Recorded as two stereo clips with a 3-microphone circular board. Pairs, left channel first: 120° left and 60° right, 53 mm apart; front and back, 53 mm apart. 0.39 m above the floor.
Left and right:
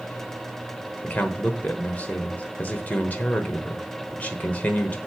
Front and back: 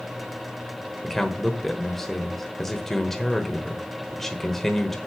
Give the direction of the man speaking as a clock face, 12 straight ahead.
9 o'clock.